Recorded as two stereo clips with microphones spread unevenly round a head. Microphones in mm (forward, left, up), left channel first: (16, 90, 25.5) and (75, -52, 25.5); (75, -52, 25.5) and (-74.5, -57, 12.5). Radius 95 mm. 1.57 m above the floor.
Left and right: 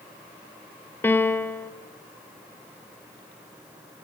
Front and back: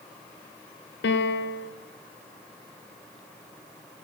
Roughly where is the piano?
Ahead left.